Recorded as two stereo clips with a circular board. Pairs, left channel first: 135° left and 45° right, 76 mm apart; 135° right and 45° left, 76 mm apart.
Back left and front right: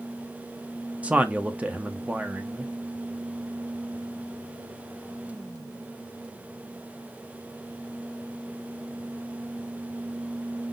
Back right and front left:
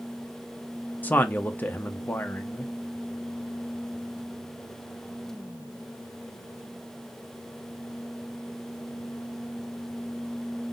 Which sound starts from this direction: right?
A man speaking, at 1.0 s.